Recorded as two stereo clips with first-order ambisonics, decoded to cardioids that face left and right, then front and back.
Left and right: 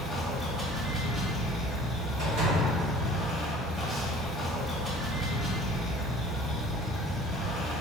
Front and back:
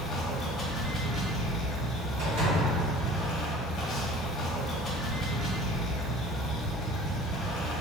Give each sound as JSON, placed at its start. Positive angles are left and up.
{"t": 0.0, "sound": "running water", "azimuth_deg": -35, "distance_m": 1.0}
{"t": 2.2, "sound": "a door slam", "azimuth_deg": -140, "distance_m": 1.7}